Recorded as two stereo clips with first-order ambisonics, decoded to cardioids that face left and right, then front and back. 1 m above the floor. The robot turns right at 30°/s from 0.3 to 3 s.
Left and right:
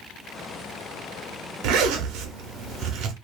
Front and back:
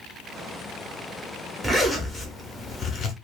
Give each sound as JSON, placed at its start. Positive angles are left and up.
{"t": 1.6, "sound": "a zipper", "azimuth_deg": -100, "distance_m": 0.8}